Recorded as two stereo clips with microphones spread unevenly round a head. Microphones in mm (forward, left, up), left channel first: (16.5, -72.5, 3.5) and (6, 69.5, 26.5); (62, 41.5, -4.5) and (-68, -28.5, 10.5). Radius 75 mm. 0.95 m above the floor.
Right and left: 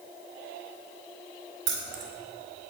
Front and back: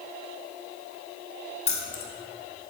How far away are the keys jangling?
About 1.3 m.